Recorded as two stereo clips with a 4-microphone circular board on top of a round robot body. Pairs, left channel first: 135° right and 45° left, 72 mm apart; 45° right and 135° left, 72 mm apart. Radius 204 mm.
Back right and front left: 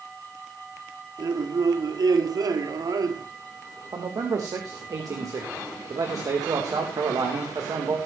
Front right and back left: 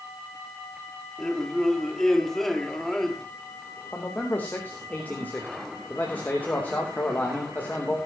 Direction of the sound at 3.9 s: 20° left.